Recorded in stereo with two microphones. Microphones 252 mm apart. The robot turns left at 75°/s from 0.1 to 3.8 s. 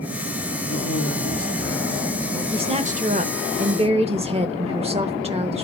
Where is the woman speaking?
35° right, 1.0 m; by 5.7 s 135° right, 1.0 m.